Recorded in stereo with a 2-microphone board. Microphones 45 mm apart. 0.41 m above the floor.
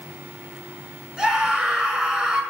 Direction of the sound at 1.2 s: 10° right (ahead or behind).